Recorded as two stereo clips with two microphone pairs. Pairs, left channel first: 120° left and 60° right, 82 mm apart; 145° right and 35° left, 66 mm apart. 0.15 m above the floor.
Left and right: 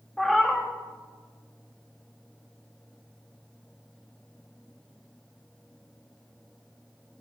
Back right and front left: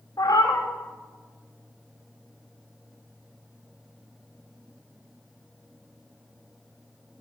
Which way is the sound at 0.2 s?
155° right.